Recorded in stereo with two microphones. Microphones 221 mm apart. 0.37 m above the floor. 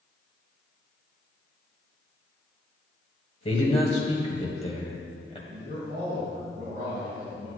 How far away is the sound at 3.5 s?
About 1.8 m.